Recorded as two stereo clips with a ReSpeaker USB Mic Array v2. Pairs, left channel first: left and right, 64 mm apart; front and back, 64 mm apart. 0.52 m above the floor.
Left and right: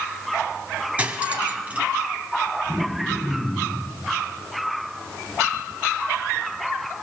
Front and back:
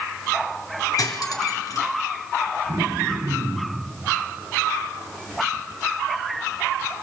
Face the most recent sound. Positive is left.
turn(degrees=170)